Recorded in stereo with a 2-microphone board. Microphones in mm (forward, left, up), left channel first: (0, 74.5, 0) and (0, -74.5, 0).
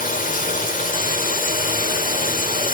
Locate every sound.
0.0 s running water: 65° left (ahead or behind), 0.9 m